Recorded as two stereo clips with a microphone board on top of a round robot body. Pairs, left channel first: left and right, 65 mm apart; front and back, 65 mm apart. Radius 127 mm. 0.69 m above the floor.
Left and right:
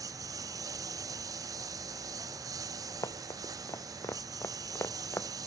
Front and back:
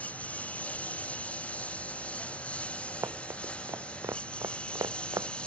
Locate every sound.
0.0 s a lawn mower: 65° right; by 5.5 s 70° right
3.0 s running footsteps: 130° left; by 5.3 s 150° left